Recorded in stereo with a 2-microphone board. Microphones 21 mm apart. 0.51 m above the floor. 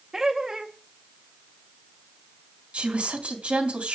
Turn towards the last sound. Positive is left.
turn(degrees=-55)  # may be behind; listen again after turning